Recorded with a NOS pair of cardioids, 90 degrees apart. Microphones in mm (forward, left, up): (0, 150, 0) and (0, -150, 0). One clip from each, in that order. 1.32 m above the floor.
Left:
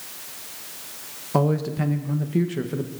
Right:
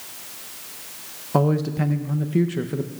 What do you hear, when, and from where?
1.3 s a man speaking: 5° right, 0.7 m